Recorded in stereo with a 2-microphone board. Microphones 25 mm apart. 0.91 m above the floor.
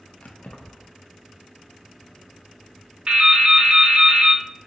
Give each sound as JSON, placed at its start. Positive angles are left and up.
{"t": 0.2, "sound": "keys jangling", "side_deg": 70, "distance_m": 0.7}
{"t": 3.1, "sound": "dripping", "side_deg": -45, "distance_m": 0.7}